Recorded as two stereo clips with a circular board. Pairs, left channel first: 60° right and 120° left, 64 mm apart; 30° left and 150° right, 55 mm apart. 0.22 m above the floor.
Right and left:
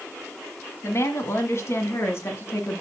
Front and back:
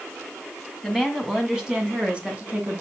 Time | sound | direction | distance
0.8 | a woman speaking | 60° right | 1.9 m